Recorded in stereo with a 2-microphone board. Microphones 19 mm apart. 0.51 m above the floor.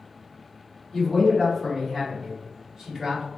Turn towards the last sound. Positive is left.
turn(degrees=-30)  # may be behind; listen again after turning